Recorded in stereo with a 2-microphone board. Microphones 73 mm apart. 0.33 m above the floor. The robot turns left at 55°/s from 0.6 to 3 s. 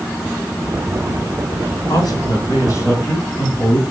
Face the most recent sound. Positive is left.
turn(degrees=40)